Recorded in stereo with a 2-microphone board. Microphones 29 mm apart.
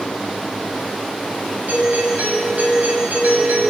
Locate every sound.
1.7 s a doorbell: 70° right (ahead or behind), 7.5 m